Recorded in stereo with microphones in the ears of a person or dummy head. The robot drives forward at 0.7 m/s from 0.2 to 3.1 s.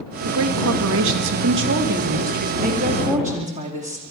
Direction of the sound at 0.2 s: 75° right (ahead or behind).